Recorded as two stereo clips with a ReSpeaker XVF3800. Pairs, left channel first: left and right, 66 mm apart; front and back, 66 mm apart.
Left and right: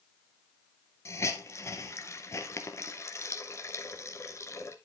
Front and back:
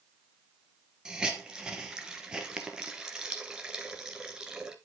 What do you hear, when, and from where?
1.1 s a hiss: 105° left, 1.7 m